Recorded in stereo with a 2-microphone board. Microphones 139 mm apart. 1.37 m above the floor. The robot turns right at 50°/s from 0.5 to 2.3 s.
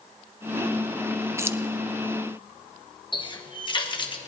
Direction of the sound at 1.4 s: 20° right (ahead or behind).